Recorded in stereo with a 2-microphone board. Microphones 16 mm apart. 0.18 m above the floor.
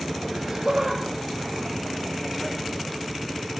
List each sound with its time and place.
0.3 s laughter: 25° right (ahead or behind), 4 m; by 2.6 s 55° right (ahead or behind), 2.5 m